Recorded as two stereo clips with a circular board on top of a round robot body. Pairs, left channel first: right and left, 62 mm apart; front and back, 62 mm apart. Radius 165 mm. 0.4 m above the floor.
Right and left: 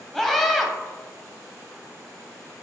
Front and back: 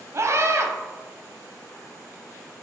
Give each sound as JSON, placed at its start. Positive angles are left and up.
{"t": 0.1, "sound": "a scream", "azimuth_deg": -170, "distance_m": 1.0}